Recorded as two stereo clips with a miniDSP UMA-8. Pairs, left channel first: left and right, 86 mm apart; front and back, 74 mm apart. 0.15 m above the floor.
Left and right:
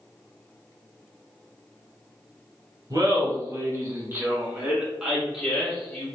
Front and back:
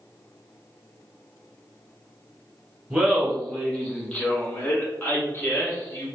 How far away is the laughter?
About 1.5 m.